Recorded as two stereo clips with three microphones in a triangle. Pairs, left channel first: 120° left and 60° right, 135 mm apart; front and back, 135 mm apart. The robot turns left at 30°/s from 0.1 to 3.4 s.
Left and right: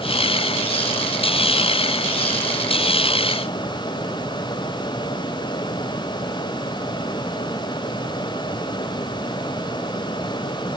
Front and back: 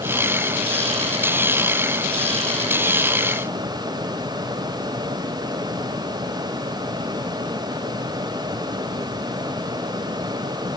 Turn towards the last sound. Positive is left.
No sound to turn to.